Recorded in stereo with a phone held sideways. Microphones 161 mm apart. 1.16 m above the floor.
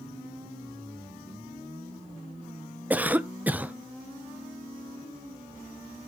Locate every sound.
2.9 s a cough: 10° right (ahead or behind), 0.6 m